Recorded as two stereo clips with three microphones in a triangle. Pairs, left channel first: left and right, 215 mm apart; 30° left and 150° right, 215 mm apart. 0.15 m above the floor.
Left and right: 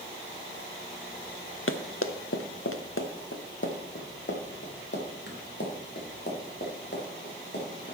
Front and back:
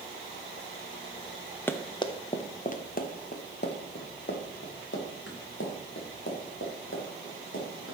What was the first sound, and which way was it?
Running footsteps, 110° left.